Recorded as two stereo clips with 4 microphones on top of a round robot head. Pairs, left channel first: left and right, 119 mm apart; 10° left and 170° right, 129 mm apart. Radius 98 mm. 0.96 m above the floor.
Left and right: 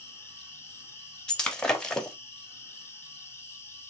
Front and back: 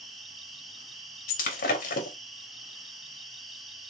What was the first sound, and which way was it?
An insect, 100° left.